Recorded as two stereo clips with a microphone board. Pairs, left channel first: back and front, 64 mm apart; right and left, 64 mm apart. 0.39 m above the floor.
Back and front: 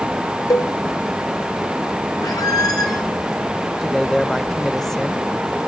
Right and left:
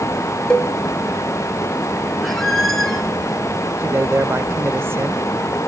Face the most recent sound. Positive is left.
turn(degrees=95)